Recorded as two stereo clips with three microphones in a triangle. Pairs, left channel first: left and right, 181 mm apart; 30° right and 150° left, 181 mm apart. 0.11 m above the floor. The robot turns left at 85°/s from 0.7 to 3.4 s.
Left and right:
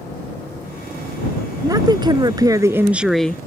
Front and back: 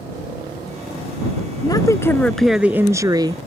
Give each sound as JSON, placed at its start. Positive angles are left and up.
{"t": 1.6, "sound": "a woman speaking", "azimuth_deg": -50}